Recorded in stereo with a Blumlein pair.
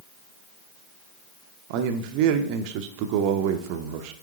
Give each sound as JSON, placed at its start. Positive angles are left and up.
{"t": 1.7, "sound": "a man speaking", "azimuth_deg": -45, "distance_m": 0.7}